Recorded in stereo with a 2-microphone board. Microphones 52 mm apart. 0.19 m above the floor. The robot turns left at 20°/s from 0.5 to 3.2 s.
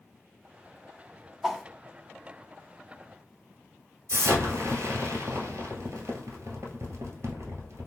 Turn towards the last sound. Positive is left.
turn(degrees=-70)  # may be behind; listen again after turning